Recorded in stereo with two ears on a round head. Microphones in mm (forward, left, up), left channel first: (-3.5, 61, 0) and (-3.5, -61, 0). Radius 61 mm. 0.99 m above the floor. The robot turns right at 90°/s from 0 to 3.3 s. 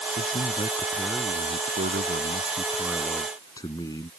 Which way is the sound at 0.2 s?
105° left.